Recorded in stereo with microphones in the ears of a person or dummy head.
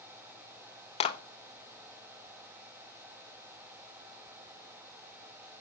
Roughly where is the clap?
Left.